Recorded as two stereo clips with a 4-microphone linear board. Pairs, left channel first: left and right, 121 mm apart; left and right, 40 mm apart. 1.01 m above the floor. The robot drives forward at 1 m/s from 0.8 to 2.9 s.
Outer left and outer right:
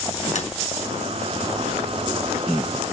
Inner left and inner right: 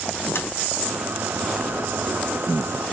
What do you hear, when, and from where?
0.3 s tapping: 70° left (ahead or behind), 3 m